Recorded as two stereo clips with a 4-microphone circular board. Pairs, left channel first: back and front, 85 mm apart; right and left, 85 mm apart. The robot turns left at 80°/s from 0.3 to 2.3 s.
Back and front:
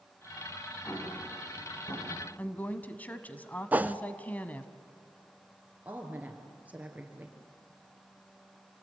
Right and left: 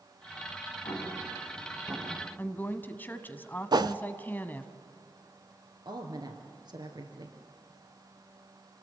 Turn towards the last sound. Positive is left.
turn(degrees=70)